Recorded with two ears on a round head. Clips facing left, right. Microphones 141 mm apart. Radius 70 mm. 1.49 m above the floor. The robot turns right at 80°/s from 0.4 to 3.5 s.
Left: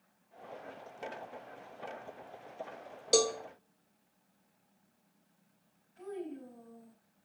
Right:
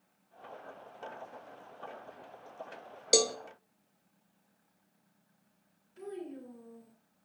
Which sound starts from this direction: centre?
A cowbell, at 3.1 s.